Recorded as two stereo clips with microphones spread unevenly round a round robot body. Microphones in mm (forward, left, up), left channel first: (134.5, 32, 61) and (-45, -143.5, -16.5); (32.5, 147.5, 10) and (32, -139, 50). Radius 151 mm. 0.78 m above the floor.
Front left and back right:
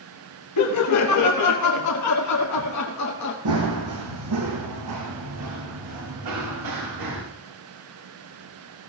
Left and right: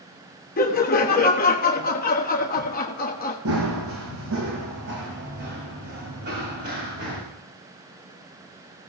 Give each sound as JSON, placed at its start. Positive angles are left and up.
{"t": 0.6, "sound": "laughter", "azimuth_deg": 45, "distance_m": 1.2}
{"t": 3.5, "sound": "running footsteps", "azimuth_deg": -130, "distance_m": 2.5}